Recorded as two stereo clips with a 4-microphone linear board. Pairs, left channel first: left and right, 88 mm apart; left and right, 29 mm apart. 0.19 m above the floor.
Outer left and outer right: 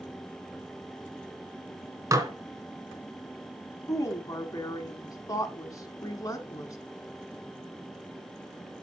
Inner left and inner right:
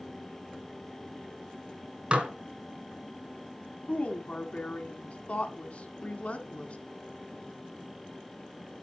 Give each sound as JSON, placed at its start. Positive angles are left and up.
{"t": 2.1, "sound": "dishes clattering", "side_deg": -35, "distance_m": 1.5}
{"t": 3.9, "sound": "a woman speaking", "side_deg": 40, "distance_m": 1.6}